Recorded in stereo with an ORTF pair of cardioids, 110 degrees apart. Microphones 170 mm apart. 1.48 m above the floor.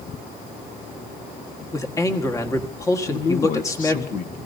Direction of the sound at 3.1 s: 50° left.